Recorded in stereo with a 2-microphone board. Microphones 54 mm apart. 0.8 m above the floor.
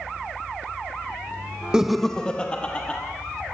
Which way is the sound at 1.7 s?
15° right (ahead or behind).